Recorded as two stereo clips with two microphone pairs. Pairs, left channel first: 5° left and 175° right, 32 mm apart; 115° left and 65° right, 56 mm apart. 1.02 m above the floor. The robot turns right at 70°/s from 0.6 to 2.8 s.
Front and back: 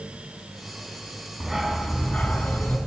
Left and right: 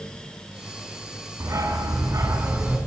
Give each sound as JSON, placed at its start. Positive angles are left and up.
{"t": 1.4, "sound": "a dog barking", "azimuth_deg": -100, "distance_m": 4.0}